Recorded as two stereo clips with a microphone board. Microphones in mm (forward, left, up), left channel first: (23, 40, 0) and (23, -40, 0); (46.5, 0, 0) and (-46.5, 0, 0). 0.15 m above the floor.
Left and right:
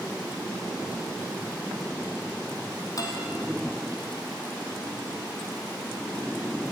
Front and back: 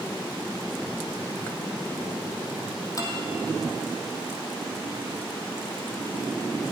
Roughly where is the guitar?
Ahead left.